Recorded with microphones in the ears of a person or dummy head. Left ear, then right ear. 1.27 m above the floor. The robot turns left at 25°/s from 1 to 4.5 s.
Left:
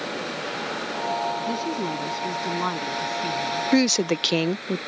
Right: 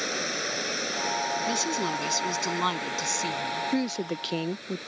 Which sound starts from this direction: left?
A woman speaking, at 3.7 s.